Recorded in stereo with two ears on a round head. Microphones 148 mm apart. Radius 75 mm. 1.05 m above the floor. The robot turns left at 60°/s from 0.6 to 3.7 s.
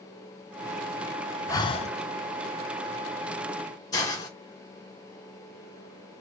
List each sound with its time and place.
1.5 s breathing: 20° left (ahead or behind), 0.5 m; by 1.9 s 40° left (ahead or behind), 0.5 m
3.9 s a hiss: 25° left (ahead or behind), 1.4 m